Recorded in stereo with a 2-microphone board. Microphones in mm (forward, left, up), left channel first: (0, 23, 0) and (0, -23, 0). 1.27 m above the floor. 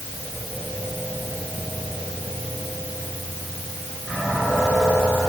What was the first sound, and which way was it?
Only background noise.